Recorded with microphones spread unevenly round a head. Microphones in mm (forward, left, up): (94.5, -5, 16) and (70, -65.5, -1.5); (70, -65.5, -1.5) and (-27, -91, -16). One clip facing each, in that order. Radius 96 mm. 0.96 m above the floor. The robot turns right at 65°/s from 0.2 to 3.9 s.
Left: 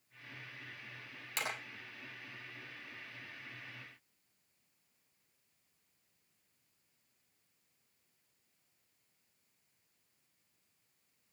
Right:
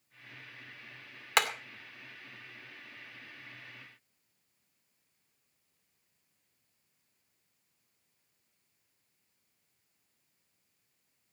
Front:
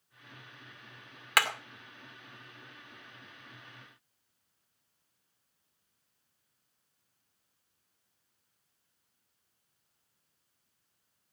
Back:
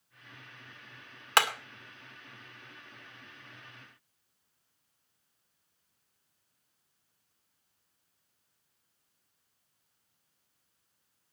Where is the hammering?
105° right, 2.0 m; by 1.5 s 95° right, 2.0 m.